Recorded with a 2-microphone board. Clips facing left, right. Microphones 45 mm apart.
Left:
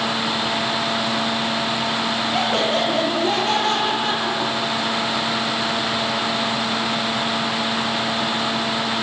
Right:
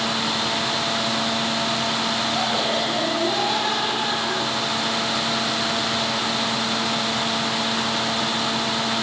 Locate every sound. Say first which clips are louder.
2.3 s laughter: left 5 dB; 60° left (ahead or behind), 8 m; by 5.0 s 75° left (ahead or behind), 10.5 m